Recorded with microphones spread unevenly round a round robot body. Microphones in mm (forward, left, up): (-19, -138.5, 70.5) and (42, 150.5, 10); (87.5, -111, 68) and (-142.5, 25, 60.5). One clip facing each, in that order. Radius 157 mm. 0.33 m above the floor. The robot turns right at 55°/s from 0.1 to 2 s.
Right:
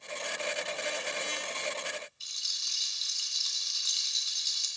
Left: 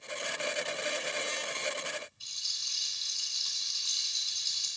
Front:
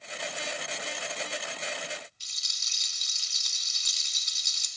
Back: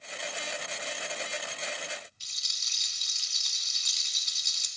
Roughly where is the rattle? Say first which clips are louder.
Even, even; ahead right.